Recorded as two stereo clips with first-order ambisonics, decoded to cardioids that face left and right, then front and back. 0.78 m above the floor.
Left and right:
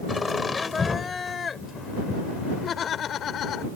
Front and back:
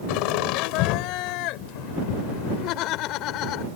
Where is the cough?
I don't hear a cough.